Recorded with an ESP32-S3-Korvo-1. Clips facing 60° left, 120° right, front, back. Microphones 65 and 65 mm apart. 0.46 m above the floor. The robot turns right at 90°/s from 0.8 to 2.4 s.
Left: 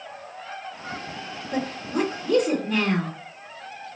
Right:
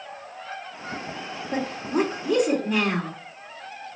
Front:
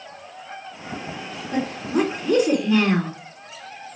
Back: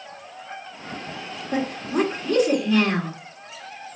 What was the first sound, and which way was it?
A woman speaking, 125° right.